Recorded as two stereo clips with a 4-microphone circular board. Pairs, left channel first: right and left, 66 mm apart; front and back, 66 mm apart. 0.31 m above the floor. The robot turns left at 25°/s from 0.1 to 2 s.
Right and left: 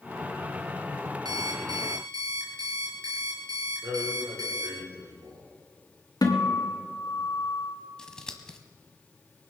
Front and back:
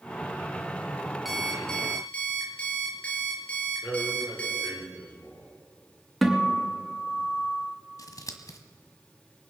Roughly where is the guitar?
Right.